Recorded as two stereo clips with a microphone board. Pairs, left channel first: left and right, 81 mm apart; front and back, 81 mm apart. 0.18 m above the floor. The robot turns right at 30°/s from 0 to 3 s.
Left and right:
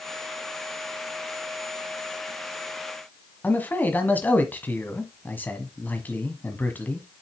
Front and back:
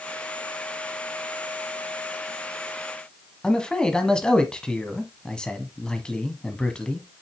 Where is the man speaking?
65° left, 1.3 m.